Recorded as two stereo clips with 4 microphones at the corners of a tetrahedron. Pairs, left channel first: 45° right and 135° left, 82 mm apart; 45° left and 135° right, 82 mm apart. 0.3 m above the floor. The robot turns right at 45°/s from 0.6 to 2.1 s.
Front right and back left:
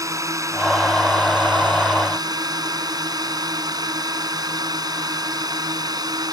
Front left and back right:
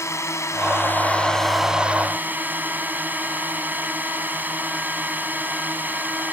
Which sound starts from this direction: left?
A drone, at 0.0 s.